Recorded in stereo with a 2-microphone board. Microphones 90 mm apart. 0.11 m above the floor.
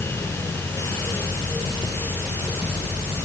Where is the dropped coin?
I don't hear a dropped coin.